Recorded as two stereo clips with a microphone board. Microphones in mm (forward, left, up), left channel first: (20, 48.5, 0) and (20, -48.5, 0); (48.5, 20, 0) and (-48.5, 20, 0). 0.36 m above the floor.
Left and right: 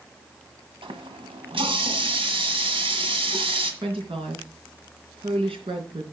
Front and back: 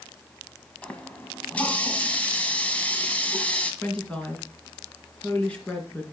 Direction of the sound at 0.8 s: 75° right.